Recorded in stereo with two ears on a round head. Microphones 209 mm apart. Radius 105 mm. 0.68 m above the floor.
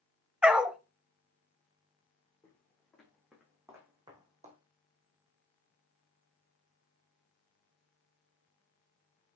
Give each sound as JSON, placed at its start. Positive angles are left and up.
{"t": 0.4, "sound": "a dog barking", "side_deg": -5, "distance_m": 0.8}
{"t": 2.4, "sound": "footsteps", "side_deg": 10, "distance_m": 4.0}